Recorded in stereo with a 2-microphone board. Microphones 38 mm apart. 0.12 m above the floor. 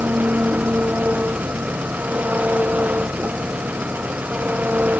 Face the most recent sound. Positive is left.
turn(degrees=-45)  # may be behind; listen again after turning